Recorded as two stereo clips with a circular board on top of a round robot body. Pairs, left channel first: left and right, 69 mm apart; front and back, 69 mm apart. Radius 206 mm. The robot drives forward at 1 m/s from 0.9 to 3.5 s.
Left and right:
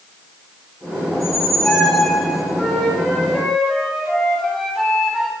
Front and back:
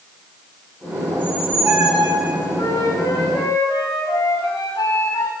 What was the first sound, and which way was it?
A squeak, 170° left.